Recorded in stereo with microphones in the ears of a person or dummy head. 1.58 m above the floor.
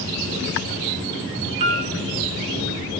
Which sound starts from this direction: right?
A piano, at 1.6 s.